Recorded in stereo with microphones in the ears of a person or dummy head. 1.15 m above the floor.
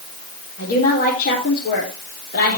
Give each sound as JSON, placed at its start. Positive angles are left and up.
{"t": 0.6, "sound": "a woman speaking", "side_deg": 50, "distance_m": 4.0}